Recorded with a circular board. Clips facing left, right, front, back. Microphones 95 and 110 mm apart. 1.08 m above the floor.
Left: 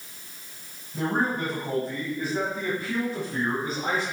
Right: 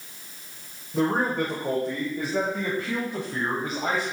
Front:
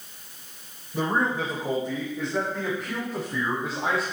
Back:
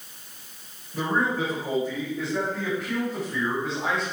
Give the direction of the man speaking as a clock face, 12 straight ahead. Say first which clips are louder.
Right 3 dB, even; 2 o'clock.